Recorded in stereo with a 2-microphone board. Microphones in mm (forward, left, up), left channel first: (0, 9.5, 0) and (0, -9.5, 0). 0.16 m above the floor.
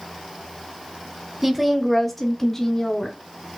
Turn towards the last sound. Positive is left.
turn(degrees=25)  # may be behind; listen again after turning